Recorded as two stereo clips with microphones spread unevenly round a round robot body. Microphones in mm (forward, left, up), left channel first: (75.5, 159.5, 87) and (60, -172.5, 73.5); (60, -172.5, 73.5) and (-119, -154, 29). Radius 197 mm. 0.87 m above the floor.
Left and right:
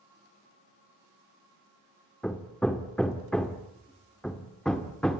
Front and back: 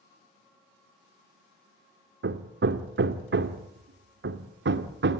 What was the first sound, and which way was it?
Hammering, 175° left.